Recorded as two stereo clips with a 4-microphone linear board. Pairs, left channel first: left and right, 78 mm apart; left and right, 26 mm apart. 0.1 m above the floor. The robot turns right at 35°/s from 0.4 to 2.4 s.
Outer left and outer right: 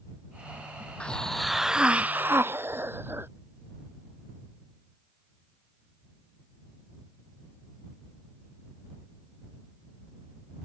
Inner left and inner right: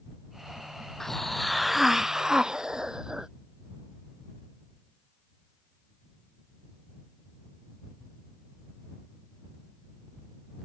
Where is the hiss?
165° left; by 3.3 s 145° right.